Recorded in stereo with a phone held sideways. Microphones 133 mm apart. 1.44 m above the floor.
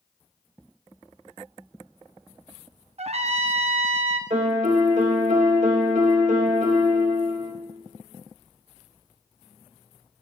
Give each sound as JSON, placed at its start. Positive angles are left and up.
{"t": 3.0, "sound": "a trumpet", "side_deg": -55, "distance_m": 0.6}
{"t": 4.3, "sound": "a piano", "side_deg": -70, "distance_m": 1.3}